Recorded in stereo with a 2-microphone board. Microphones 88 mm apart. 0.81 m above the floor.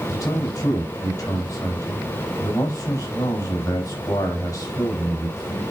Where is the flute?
I don't hear a flute.